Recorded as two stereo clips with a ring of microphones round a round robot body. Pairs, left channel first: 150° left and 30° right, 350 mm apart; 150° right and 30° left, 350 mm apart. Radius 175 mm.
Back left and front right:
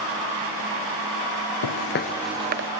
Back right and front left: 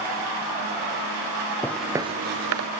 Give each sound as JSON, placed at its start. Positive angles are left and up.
{"t": 1.6, "sound": "footsteps", "azimuth_deg": 125, "distance_m": 1.1}